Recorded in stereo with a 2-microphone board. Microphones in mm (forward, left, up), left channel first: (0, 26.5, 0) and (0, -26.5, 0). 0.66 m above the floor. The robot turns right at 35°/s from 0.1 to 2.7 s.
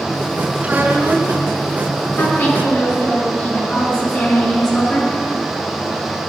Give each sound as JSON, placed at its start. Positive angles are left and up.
{"t": 0.6, "sound": "a child speaking", "side_deg": -30, "distance_m": 4.5}
{"t": 2.2, "sound": "a woman speaking", "side_deg": 45, "distance_m": 8.5}